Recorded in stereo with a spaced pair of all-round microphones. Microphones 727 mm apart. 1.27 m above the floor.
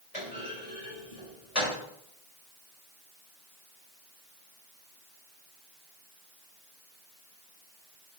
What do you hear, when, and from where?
0.1 s a clunk: 55° left (ahead or behind), 4.5 m